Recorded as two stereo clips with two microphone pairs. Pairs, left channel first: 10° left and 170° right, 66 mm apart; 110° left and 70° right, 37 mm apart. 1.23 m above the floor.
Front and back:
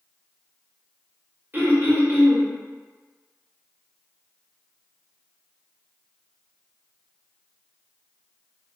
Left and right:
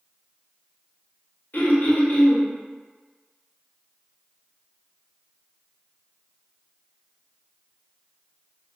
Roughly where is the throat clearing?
Behind left.